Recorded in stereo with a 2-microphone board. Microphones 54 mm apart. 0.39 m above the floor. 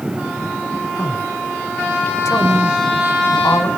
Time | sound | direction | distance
1.0 | a man speaking | 70° left (ahead or behind) | 2.5 m